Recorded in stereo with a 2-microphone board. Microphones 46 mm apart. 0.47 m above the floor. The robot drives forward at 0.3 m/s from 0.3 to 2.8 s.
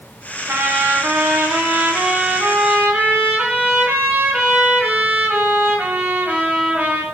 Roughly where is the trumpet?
Right.